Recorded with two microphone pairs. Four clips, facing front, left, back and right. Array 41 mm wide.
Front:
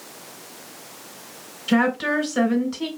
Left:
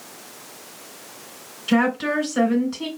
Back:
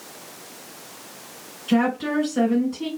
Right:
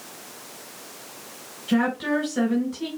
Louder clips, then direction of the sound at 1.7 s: Left 3 dB, front 1 dB; 50° left.